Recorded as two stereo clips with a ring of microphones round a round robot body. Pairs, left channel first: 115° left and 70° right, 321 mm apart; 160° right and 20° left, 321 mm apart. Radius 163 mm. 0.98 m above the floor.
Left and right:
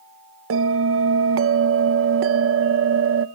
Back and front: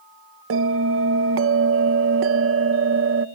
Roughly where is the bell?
Ahead right.